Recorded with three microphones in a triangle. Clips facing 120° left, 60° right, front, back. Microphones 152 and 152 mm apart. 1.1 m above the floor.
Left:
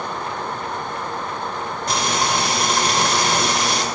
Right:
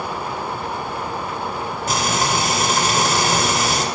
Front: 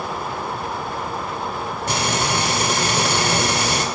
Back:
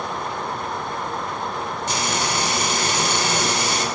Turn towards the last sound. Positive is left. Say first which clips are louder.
# right 1 dB, front 4 dB
turn(degrees=25)